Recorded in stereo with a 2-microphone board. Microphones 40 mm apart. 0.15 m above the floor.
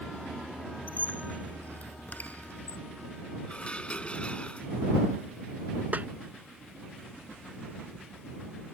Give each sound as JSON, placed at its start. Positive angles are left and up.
{"t": 0.9, "sound": "a squeak", "side_deg": 50}
{"t": 3.5, "sound": "dishes clattering", "side_deg": 30}
{"t": 5.9, "sound": "a snare drum", "side_deg": -45}